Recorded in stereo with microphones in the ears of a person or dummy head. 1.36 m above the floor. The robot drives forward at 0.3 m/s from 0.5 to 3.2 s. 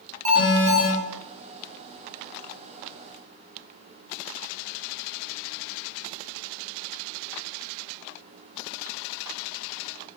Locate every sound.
0.2 s an alarm: 35° right (ahead or behind), 1.5 m; by 0.9 s 40° right (ahead or behind), 1.4 m